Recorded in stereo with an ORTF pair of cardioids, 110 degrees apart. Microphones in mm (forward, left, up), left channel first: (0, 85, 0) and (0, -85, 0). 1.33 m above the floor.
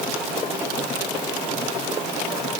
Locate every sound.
Only background noise.